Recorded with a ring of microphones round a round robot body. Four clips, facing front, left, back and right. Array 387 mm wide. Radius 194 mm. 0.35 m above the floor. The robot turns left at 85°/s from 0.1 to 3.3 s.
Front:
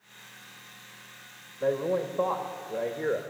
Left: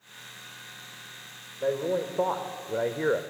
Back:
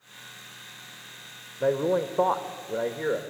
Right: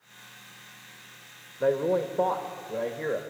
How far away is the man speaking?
About 1.1 m.